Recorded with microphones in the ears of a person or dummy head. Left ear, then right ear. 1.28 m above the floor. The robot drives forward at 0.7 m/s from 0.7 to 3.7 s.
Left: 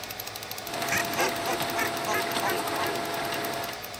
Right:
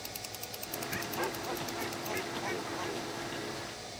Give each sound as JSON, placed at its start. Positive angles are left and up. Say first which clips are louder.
{"t": 0.9, "sound": "laughter", "louder": "left 10 dB", "side_deg": 75}